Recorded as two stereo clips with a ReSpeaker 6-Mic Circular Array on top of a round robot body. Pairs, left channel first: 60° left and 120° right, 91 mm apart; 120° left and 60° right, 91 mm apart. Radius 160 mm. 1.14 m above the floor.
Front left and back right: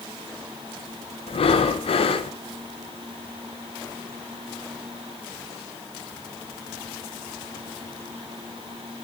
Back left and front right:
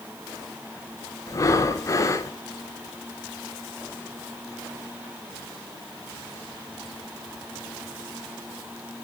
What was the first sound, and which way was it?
Breathing, 65° left.